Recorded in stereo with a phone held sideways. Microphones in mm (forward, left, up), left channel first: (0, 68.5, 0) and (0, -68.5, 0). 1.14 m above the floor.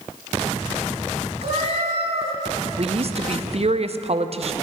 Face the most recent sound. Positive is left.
turn(degrees=-50)  # may be behind; listen again after turning